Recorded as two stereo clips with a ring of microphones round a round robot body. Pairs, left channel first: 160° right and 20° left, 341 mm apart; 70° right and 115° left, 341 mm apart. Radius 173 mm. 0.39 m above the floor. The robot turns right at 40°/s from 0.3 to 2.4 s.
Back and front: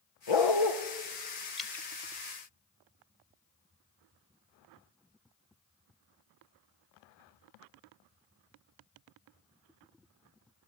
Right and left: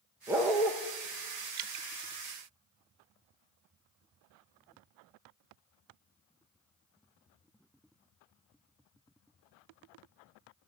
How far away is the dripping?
About 0.7 m.